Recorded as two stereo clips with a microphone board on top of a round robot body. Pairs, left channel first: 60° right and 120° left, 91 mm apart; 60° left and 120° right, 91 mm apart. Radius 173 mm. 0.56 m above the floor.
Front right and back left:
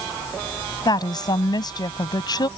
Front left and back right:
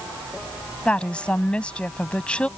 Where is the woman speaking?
15° right.